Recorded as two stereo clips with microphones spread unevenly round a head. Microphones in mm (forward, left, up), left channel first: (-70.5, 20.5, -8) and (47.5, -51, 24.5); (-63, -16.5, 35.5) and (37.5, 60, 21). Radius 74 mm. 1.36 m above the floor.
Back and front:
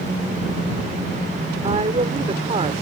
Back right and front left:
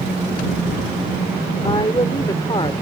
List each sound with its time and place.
1.6 s a woman speaking: 80° right